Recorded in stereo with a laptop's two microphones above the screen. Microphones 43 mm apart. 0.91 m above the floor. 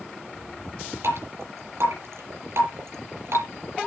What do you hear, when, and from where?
1.0 s dripping: 75° right (ahead or behind), 3.5 m